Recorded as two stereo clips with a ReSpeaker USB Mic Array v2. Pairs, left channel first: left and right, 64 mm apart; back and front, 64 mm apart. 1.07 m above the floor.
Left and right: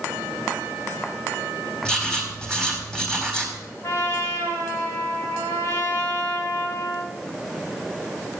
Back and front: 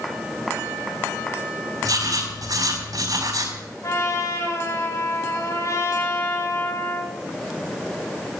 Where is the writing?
10° left, 4 m.